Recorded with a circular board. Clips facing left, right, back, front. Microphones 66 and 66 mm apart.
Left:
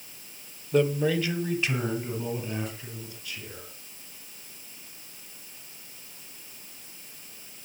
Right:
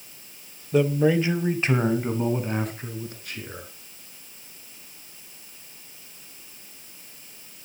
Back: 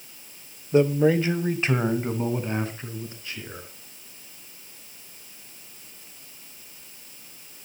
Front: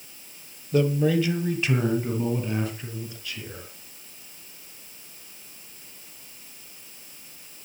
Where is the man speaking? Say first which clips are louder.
Right 3 dB, back 3 dB; 175° right, 1.1 m; by 3.7 s 125° right, 4 m.